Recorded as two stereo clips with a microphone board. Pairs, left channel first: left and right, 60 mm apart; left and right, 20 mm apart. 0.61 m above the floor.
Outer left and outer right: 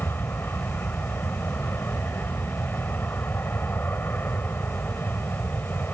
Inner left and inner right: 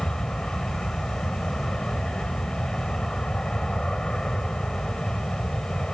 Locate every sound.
0.0 s an aircraft: 35° left (ahead or behind)